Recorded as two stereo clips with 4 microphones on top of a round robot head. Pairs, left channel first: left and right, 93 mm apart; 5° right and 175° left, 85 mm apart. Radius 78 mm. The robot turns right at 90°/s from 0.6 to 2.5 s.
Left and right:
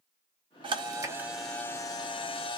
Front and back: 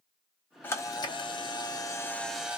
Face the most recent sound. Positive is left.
turn(degrees=100)